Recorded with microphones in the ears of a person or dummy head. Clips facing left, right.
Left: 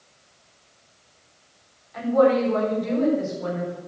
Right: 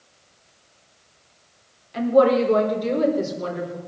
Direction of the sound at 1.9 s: 35° right (ahead or behind).